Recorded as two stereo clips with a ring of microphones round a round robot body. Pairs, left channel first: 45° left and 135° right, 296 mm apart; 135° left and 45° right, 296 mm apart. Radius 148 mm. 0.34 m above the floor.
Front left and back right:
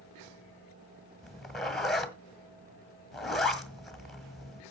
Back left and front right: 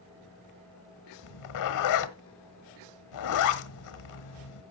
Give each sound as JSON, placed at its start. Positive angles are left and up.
{"t": 1.2, "sound": "a zipper", "azimuth_deg": 135, "distance_m": 1.4}